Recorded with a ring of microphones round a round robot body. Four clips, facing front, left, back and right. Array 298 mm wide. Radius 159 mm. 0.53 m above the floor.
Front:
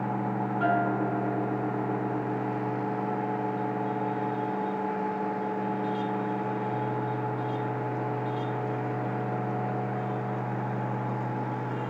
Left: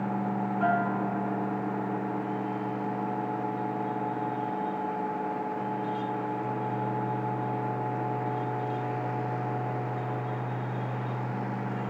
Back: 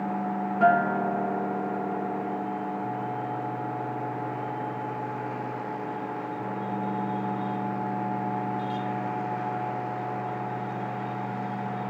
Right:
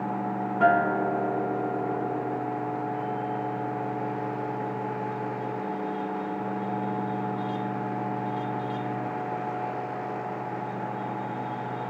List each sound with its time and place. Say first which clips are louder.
0.6 s a guitar: right 6 dB, back 5 dB; 105° right, 2.0 m